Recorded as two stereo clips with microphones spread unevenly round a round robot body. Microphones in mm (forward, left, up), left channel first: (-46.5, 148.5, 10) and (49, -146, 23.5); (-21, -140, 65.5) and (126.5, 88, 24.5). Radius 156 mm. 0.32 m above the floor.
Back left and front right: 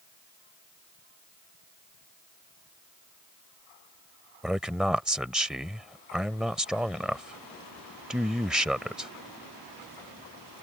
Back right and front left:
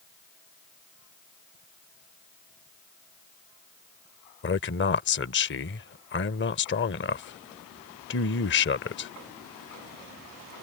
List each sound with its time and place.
4.4 s a man speaking: 160° right